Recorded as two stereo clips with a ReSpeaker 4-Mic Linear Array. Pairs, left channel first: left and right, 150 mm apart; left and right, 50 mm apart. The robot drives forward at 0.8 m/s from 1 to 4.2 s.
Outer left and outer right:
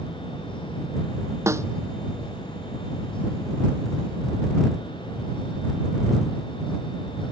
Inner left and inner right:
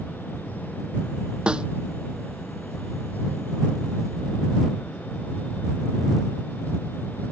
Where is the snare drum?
20° right (ahead or behind).